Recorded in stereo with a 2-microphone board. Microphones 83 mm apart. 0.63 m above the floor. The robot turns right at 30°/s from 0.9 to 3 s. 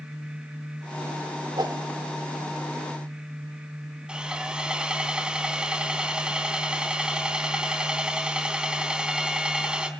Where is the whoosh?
60° right (ahead or behind), 1.6 m; by 1.9 s 65° right (ahead or behind), 1.6 m.